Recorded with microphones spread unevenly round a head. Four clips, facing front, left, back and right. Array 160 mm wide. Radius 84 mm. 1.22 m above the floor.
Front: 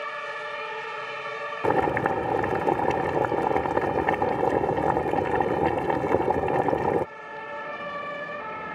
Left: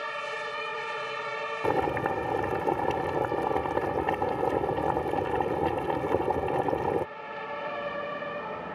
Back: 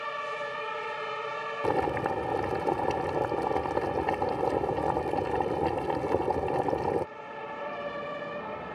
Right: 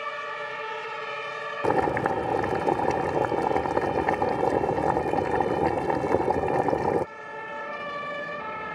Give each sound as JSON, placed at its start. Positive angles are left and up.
{"t": 1.6, "sound": "boiling", "azimuth_deg": -65}